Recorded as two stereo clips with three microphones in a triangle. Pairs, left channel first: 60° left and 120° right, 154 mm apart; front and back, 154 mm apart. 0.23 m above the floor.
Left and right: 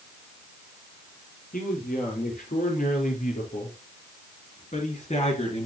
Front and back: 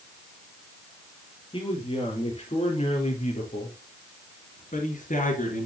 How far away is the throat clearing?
I don't hear throat clearing.